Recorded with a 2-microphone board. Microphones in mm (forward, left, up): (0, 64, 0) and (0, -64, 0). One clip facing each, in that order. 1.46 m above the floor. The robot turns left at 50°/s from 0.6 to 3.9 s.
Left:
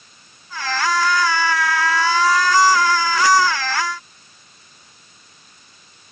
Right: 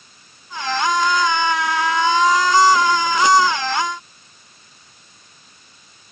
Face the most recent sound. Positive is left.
No sound to turn to.